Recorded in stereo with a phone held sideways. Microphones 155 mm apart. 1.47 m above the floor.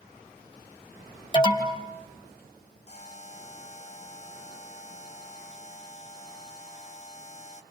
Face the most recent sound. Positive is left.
turn(degrees=45)  # may be behind; listen again after turning